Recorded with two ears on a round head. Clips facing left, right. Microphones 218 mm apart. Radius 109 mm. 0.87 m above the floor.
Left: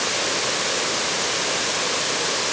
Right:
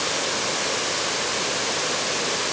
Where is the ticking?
No ticking in this recording.